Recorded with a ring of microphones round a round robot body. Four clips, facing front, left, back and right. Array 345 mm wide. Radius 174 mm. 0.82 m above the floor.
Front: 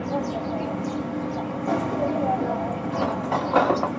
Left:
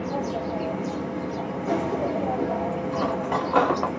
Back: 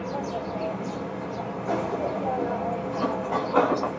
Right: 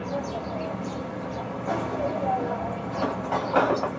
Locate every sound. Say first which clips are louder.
0.0 s an insect: left 3 dB, front 3 dB; 15° left, 1.4 m
2.9 s cutlery clinking: even, front 3 dB; 15° left, 1.1 m